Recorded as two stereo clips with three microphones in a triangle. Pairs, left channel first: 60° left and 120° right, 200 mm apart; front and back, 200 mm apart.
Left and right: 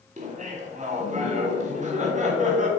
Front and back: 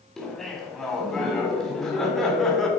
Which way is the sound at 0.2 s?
85° right.